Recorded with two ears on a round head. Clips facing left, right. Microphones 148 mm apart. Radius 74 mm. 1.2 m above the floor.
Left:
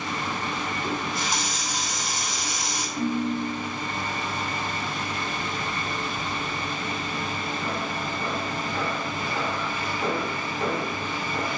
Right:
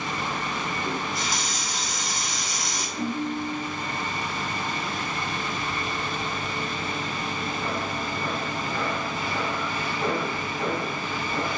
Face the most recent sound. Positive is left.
turn(degrees=45)  # may be behind; listen again after turning